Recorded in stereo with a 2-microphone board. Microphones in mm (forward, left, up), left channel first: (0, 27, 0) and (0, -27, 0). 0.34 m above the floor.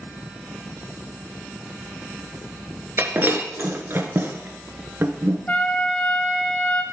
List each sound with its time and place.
3.0 s breaking glass: 45° right (ahead or behind), 0.9 m
5.5 s a trumpet: 30° left (ahead or behind), 1.0 m